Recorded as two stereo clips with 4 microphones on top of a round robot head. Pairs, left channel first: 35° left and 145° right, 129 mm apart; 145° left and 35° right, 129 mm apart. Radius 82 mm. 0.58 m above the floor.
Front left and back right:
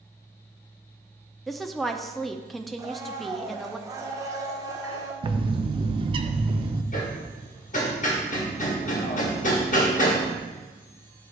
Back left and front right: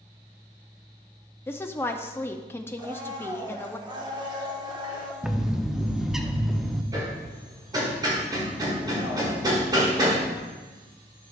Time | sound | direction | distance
1.5 | a woman speaking | 120° left | 0.6 m
2.8 | a blender | 85° right | 1.4 m
5.2 | a bird | 120° right | 0.7 m
6.9 | hammering | 25° left | 1.9 m